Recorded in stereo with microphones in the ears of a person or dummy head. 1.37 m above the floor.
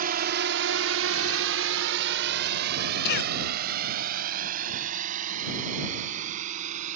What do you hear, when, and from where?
0.0 s a drone: 50° right (ahead or behind); by 7.0 s 45° right (ahead or behind)
3.0 s a cough: 60° left (ahead or behind)